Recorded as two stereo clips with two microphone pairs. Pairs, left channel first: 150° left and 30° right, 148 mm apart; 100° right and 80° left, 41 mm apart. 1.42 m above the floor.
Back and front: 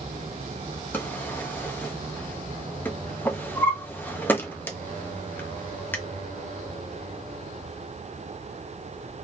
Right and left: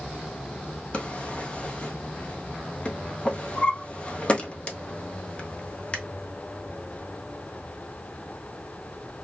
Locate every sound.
0.9 s a drawer: 135° right, 0.6 m